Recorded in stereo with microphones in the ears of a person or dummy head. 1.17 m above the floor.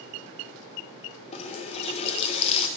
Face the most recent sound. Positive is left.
turn(degrees=35)  # may be behind; listen again after turning